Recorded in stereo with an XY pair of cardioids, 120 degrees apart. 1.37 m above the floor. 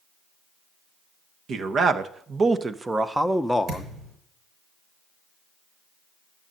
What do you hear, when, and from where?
1.5 s a man speaking: 50° right, 1.4 m; by 3.9 s 15° left, 0.9 m
3.7 s a thud: 65° right, 6.5 m